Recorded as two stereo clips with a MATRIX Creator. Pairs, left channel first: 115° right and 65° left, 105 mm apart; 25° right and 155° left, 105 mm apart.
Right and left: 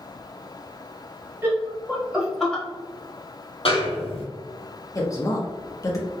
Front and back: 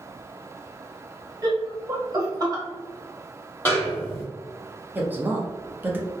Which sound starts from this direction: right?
A snare drum, at 3.6 s.